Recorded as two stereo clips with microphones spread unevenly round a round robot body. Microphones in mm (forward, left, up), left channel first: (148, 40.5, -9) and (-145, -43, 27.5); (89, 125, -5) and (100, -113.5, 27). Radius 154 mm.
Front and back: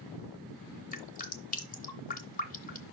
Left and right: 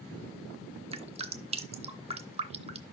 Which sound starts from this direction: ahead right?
Dripping, at 0.9 s.